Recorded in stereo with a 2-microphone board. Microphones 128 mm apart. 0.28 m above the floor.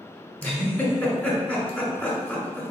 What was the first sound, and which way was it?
A giggle, 10° left (ahead or behind).